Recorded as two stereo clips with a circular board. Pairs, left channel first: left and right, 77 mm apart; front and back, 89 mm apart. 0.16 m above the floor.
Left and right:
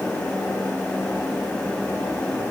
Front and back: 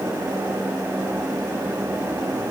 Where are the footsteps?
No footsteps in this recording.